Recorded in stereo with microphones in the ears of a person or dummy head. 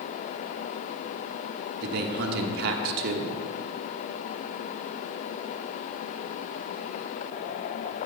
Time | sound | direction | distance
1.8 | a man speaking | 60° right (ahead or behind) | 1.2 m